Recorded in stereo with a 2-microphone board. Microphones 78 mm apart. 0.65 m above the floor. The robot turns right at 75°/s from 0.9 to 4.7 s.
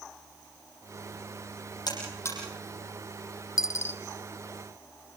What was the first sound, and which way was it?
A buzzer, 70° left (ahead or behind).